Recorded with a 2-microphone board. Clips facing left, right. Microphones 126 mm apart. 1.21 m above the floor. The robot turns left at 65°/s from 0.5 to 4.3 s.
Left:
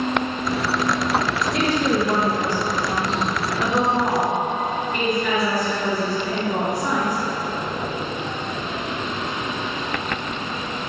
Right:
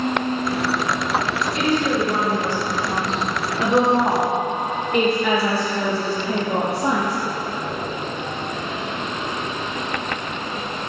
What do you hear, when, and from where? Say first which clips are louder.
1.5 s a woman speaking: even; 105° left, 1.6 m; by 7.2 s 75° right, 1.6 m